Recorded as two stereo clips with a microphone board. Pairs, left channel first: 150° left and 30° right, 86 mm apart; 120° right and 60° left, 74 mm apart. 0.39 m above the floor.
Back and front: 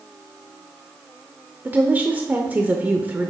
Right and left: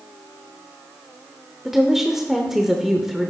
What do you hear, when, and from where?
1.6 s a woman speaking: 20° right, 0.8 m